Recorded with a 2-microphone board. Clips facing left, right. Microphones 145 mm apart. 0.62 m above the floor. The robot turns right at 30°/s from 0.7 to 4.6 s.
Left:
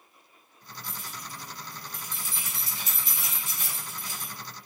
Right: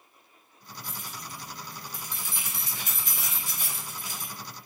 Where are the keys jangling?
50° right (ahead or behind), 0.9 m; by 4.3 s 15° right (ahead or behind), 0.9 m.